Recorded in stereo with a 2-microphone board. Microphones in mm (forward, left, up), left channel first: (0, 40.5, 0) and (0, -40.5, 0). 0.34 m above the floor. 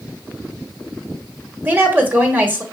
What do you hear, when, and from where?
1.6 s a woman speaking: 25° right (ahead or behind), 1.2 m